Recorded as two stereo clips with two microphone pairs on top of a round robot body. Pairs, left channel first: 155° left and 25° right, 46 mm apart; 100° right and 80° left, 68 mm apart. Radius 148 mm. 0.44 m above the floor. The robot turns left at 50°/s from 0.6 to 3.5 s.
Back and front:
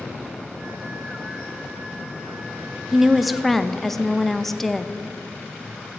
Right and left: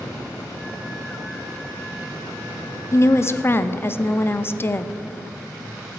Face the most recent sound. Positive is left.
turn(degrees=-140)